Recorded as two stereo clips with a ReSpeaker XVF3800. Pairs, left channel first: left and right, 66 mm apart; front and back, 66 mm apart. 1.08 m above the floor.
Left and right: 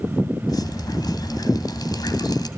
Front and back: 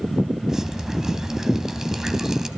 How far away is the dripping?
About 2.5 m.